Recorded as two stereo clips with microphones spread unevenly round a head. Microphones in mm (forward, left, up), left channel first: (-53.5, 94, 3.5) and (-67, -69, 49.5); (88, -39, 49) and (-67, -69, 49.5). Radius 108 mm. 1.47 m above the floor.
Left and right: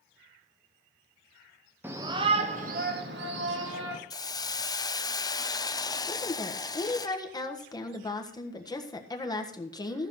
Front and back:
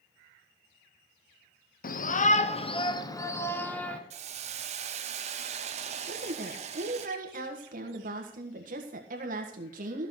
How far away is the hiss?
About 0.6 m.